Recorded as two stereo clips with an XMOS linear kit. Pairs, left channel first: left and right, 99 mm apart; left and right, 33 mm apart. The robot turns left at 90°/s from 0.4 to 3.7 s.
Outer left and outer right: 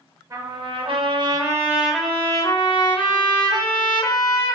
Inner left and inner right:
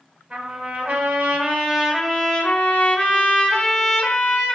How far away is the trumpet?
About 0.5 m.